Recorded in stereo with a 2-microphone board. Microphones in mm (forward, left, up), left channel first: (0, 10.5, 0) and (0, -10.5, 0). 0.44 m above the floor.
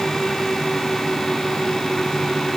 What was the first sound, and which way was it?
Only background noise.